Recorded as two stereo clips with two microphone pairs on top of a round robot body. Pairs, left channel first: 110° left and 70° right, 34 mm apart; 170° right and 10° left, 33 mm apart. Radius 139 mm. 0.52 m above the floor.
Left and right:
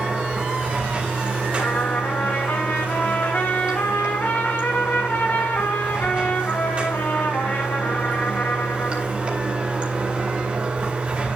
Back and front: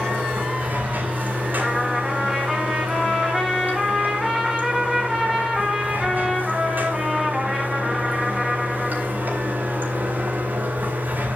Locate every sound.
0.0 s running water: 10° right, 3.5 m
1.6 s a trumpet: 90° left, 5.5 m